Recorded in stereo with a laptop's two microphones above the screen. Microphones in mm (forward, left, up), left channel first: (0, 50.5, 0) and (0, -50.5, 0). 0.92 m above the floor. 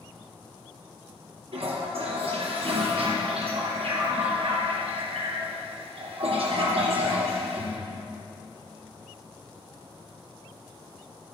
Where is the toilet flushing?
75° right (ahead or behind), 3 m.